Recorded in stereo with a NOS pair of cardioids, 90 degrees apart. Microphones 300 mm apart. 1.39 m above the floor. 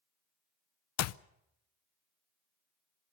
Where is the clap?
60° left, 0.6 m.